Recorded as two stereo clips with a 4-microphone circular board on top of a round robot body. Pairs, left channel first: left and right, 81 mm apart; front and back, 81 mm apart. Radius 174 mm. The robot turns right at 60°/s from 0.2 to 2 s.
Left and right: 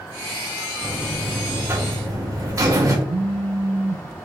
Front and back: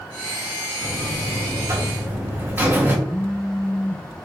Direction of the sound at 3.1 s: 75° right.